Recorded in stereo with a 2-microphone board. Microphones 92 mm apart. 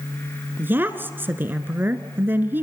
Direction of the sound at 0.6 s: 20° right (ahead or behind).